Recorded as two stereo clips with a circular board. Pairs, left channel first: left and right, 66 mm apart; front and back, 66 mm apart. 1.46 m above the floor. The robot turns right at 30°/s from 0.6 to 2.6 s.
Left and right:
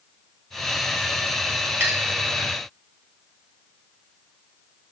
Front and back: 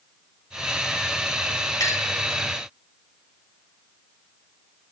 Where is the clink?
30° right, 1.4 m; by 2.1 s 20° right, 1.4 m.